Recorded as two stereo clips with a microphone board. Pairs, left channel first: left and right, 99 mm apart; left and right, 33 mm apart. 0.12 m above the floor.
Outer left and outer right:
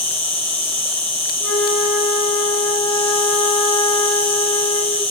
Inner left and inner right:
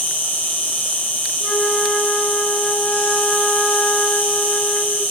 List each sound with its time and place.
0.0 s an insect: 75° left (ahead or behind), 0.8 m
1.4 s a flute: 25° left (ahead or behind), 1.7 m